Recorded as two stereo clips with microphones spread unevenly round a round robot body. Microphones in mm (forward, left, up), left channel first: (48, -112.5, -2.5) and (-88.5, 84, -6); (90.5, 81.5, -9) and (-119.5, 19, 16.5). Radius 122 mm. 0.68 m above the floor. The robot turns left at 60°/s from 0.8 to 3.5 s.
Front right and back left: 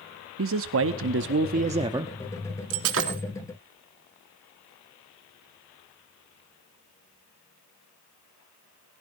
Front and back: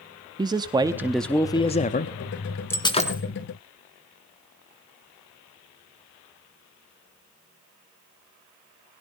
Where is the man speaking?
125° left, 0.8 m; by 2.1 s 45° left, 0.8 m.